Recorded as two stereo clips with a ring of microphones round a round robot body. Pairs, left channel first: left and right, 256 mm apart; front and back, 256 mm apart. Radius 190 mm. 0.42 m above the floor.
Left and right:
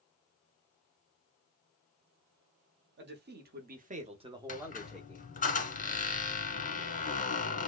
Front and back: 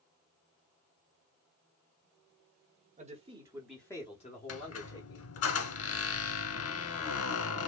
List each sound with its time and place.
3.0 s a man speaking: 125° right, 1.2 m; by 5.2 s 5° left, 1.3 m
4.5 s a squeak: 30° left, 1.1 m